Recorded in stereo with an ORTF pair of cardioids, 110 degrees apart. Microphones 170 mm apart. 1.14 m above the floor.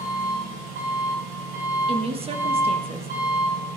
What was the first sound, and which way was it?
An engine running, 65° right.